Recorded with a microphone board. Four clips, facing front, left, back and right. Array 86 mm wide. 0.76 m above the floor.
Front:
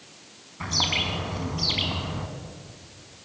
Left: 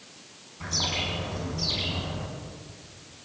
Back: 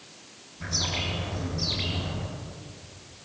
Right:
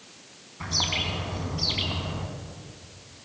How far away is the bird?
About 5.5 m.